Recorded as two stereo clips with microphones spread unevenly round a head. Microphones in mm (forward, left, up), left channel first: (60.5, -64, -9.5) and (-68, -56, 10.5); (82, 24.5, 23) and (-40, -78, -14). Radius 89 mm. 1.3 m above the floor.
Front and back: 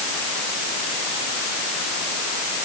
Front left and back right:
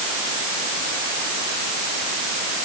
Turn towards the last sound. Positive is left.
No sound to turn to.